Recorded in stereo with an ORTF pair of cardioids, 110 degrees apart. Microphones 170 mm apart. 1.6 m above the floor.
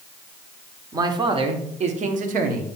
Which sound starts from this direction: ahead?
A man speaking, at 0.9 s.